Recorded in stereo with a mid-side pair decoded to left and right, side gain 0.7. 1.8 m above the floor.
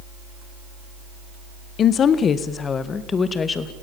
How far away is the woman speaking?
About 1.5 m.